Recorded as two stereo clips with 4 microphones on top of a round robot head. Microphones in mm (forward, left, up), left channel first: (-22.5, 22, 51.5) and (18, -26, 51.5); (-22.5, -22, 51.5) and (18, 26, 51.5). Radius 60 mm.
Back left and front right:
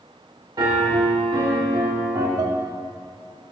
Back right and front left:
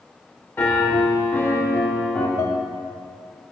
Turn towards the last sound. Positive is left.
turn(degrees=-85)